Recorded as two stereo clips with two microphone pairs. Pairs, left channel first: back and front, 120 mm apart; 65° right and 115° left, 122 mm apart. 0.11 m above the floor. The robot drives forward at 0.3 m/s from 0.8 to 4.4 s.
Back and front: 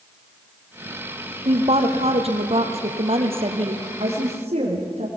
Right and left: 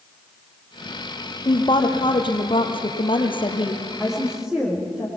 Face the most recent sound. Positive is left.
turn(degrees=30)